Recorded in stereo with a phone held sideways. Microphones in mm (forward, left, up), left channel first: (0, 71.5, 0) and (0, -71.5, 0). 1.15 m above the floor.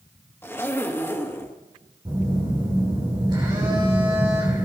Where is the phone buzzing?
30° right (ahead or behind), 7 m.